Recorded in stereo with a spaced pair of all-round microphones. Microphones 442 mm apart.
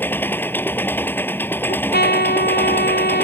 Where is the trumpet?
20° left (ahead or behind).